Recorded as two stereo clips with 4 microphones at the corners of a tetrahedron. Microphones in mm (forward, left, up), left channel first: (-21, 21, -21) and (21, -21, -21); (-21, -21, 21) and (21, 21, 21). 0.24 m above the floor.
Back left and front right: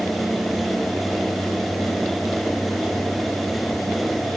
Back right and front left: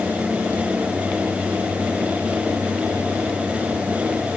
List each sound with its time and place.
Only background noise.